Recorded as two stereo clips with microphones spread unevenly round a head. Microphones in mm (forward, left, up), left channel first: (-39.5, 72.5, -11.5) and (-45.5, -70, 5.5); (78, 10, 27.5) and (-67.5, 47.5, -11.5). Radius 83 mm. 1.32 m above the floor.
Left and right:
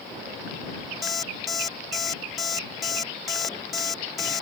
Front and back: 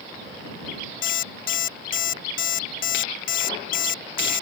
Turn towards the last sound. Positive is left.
turn(degrees=-5)